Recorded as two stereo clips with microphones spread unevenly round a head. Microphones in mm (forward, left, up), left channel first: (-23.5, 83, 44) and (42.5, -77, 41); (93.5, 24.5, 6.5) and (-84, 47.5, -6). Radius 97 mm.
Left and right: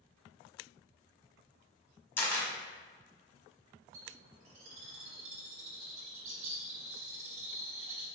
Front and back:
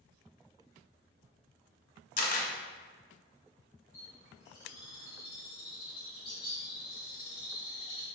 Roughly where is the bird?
Right.